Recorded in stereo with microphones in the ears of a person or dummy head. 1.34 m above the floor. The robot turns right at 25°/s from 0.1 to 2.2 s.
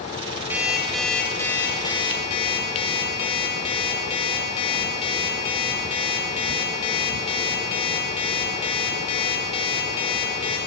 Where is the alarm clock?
10° right, 4.5 m; by 10.6 s 30° left, 4.5 m.